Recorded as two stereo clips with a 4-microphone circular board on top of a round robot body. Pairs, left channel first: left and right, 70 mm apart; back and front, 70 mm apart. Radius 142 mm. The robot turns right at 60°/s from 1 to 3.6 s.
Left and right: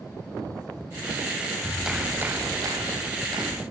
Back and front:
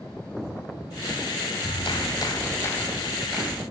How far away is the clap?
About 6.5 m.